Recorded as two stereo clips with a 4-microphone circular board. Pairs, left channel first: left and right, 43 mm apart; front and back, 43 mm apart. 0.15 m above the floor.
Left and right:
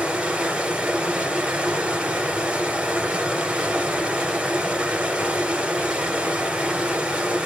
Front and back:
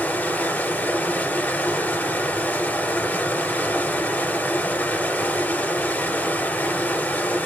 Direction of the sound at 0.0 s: 30° right.